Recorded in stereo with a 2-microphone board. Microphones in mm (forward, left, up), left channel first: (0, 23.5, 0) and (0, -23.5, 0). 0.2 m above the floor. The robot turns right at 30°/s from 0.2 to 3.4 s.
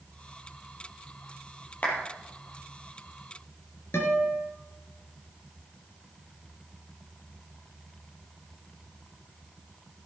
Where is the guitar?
70° left (ahead or behind), 3 m.